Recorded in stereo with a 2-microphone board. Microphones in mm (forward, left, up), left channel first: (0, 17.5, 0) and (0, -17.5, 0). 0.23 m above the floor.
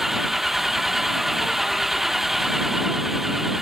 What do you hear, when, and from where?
0.0 s an engine running: 5° right (ahead or behind)